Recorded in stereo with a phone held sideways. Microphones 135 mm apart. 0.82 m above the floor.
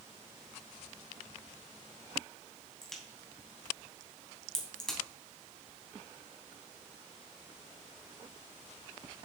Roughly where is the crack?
Centre.